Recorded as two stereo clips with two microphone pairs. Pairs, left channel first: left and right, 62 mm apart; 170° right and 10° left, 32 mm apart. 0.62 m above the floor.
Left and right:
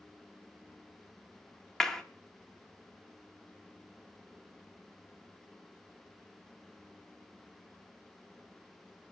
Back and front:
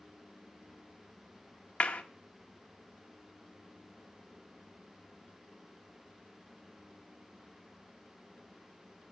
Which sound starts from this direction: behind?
A clap, at 1.8 s.